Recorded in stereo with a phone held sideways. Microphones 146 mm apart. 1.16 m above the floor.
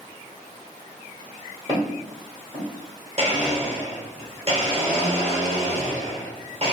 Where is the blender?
45° right (ahead or behind), 0.8 m.